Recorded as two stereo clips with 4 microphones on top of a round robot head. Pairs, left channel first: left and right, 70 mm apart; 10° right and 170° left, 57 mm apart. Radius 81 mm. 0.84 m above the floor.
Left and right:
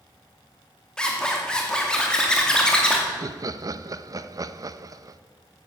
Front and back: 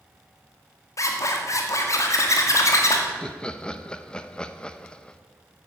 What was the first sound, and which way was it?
A zipper, 10° left.